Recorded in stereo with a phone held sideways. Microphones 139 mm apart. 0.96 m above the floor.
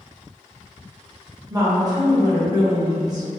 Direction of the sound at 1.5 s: 25° right (ahead or behind).